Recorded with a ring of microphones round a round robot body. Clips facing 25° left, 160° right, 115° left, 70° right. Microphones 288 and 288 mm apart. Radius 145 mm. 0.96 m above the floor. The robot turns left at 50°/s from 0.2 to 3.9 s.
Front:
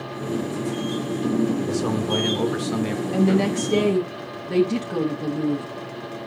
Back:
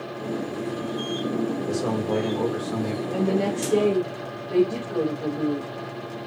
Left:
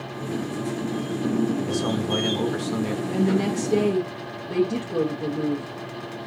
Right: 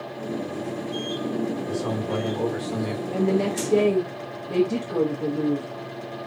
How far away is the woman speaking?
About 1.1 m.